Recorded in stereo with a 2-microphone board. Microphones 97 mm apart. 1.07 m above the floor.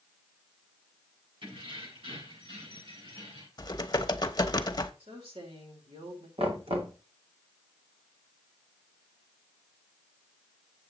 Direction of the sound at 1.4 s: 60° right (ahead or behind).